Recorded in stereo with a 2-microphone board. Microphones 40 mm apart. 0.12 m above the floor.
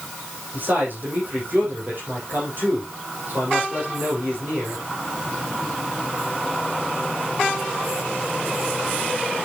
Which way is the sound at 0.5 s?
50° right (ahead or behind).